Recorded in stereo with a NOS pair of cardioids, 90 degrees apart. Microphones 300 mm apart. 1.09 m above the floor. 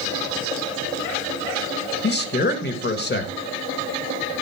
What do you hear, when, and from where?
2.0 s a man speaking: 35° left, 1.8 m